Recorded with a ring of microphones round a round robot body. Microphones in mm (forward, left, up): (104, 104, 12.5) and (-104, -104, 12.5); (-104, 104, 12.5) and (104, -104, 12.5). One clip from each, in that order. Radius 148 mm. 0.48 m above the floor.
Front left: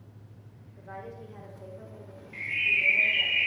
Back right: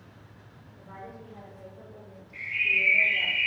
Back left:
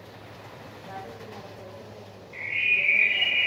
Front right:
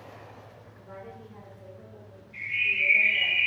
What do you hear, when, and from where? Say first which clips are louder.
0.8 s a woman speaking: front left 2 dB, back left 4 dB; 65° left, 1.2 m; by 3.3 s 165° right, 0.9 m
2.3 s a bird: back right 1 dB, back left 2 dB; 90° left, 2.5 m